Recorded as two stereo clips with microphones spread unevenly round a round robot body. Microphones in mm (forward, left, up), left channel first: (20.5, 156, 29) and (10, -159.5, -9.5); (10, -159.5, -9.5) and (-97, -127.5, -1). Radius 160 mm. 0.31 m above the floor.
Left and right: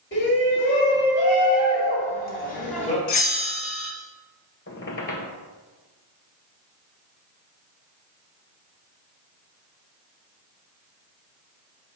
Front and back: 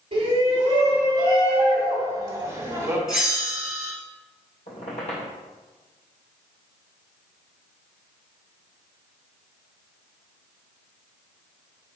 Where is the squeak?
35° left, 1.0 m.